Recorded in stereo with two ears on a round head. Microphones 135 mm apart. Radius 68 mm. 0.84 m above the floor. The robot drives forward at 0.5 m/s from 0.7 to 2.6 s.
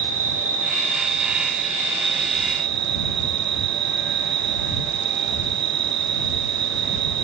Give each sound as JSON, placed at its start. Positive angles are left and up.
{"t": 0.0, "sound": "an insect", "side_deg": -55, "distance_m": 1.9}